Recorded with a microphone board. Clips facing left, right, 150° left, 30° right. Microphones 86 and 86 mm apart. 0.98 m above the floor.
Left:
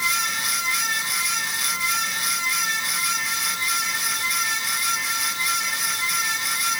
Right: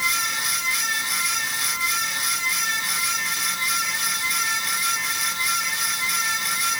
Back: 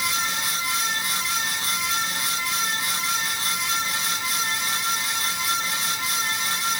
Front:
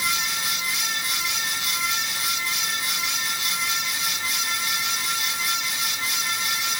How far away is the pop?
I don't hear a pop.